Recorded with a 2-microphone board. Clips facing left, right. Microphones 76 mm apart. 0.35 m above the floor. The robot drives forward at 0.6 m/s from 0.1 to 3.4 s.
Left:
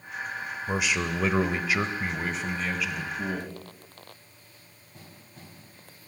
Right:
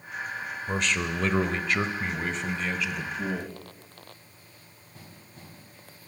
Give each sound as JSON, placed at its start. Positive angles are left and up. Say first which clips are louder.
{"t": 0.7, "sound": "a man speaking", "louder": "left 1 dB", "side_deg": 10, "distance_m": 0.8}